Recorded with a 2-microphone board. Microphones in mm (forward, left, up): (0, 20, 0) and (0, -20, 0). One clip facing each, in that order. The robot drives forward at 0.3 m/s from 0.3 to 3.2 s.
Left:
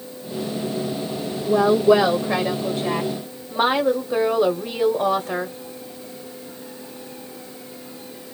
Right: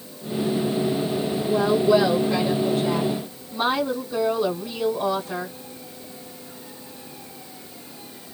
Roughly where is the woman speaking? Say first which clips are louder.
Left 4 dB; left.